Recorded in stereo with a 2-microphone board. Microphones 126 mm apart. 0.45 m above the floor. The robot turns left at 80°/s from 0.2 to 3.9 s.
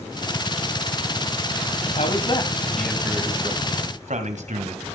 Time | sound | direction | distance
2.0 | a man speaking | 70° left | 2.5 m